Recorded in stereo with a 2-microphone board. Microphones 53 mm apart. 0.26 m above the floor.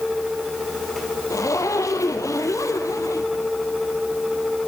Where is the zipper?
85° left, 1.9 m.